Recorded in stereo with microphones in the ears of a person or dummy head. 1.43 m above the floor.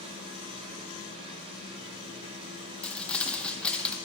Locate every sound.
0.0 s a machine running: 30° right (ahead or behind), 2.5 m
2.8 s crumpling: 10° left (ahead or behind), 1.0 m